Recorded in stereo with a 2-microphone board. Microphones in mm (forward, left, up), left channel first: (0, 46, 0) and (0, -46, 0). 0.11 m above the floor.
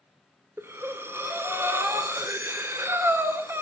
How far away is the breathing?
About 0.5 m.